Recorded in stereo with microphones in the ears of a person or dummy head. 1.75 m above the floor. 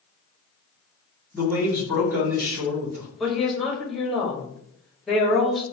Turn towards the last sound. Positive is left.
turn(degrees=5)  # may be behind; listen again after turning